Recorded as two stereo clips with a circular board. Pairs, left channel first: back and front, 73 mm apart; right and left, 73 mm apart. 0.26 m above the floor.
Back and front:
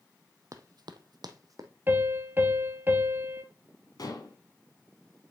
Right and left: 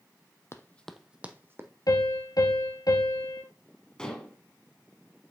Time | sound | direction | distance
0.5 | running footsteps | 40° right | 0.6 m
1.9 | a piano | 60° right | 1.1 m
4.0 | dishes clattering | 170° right | 1.3 m